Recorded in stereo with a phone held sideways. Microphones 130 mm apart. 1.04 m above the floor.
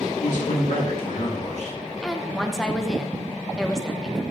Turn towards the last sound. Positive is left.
turn(degrees=5)  # may be behind; listen again after turning